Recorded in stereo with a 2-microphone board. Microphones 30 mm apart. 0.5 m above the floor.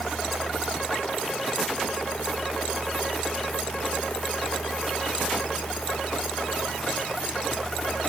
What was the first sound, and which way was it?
Only background noise.